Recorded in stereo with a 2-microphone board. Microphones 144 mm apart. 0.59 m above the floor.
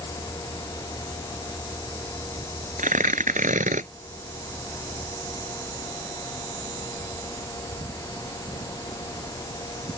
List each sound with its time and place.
2.8 s tearing paper: 65° right (ahead or behind)